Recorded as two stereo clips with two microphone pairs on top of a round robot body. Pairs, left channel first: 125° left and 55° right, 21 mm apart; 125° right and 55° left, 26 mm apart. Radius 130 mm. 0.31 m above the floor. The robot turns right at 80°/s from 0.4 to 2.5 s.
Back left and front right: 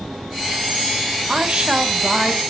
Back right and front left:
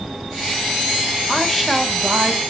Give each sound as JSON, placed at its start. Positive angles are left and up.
{"t": 1.3, "sound": "a woman speaking", "azimuth_deg": -65, "distance_m": 2.5}